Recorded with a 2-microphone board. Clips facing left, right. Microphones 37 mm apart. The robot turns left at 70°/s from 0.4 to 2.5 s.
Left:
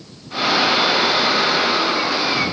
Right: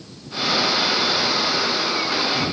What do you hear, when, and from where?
Only background noise.